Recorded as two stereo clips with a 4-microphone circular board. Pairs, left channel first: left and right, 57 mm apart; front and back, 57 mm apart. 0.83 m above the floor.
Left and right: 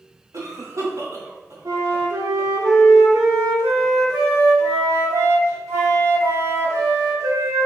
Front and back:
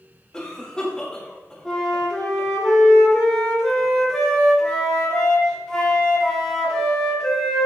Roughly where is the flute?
Right.